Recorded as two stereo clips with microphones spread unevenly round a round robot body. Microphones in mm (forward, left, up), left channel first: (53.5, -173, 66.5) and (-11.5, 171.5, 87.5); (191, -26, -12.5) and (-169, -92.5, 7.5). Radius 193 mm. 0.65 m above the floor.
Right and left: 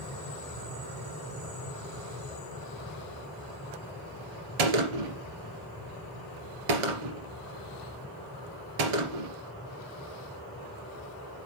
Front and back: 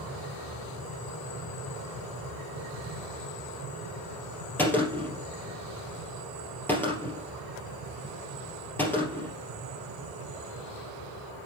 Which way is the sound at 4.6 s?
95° left.